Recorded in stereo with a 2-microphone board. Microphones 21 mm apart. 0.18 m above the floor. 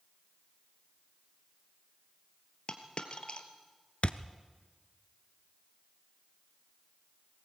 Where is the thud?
60° left (ahead or behind), 0.7 m.